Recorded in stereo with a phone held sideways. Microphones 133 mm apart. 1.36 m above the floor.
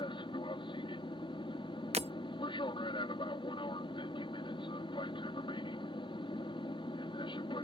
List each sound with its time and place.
0.0 s an aircraft: 35° left (ahead or behind)
1.9 s breaking glass: 50° right (ahead or behind)